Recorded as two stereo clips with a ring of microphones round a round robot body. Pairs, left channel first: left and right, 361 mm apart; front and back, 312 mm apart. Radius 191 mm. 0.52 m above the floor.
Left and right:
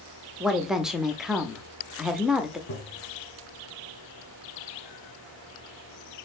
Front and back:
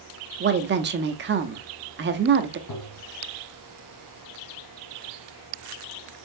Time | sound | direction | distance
0.4 | a woman speaking | straight behind | 0.7 m
2.7 | tapping | 30° left | 1.1 m